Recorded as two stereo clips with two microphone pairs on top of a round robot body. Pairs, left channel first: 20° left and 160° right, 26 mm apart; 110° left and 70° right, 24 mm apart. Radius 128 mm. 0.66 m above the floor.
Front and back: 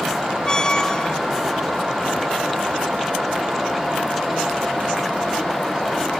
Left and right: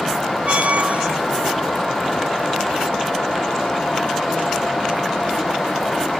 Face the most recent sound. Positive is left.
turn(degrees=-45)